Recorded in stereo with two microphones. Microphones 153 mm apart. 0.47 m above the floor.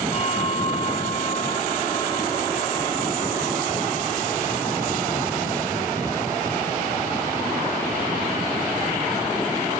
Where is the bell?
45° left (ahead or behind), 1.7 m.